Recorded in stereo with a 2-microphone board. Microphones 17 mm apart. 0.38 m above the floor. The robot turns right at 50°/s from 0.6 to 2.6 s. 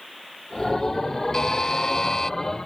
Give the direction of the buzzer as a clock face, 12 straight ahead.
10 o'clock.